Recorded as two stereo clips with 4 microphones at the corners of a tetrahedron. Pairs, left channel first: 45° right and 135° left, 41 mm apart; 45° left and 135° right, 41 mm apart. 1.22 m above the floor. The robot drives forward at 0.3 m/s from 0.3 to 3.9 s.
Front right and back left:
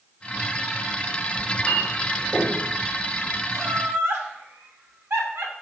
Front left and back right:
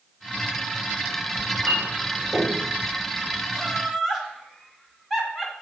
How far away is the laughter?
About 0.9 m.